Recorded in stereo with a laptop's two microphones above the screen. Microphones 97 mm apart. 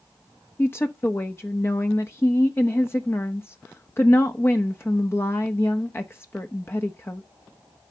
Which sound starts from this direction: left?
A woman speaking, at 0.6 s.